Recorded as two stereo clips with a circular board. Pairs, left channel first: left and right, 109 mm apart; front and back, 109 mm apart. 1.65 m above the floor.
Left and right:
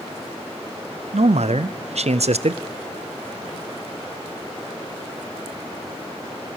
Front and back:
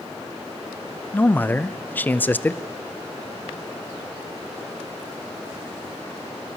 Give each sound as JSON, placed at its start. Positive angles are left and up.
{"t": 1.1, "sound": "a man speaking", "azimuth_deg": -75, "distance_m": 0.6}